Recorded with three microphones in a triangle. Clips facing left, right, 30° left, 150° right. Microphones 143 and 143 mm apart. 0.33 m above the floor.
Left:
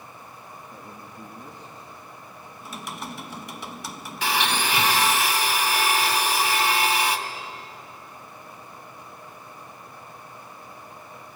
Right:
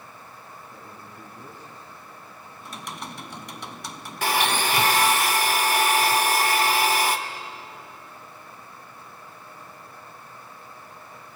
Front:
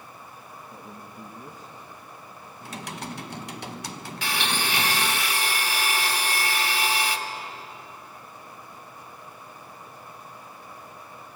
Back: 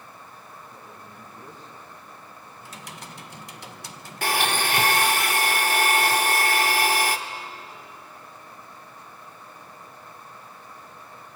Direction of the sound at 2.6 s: 5° left.